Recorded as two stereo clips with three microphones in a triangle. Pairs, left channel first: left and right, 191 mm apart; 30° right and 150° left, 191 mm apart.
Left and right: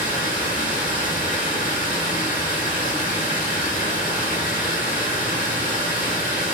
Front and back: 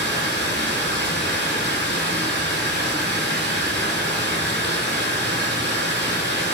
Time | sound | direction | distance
0.0 | running water | 130° left | 1.1 m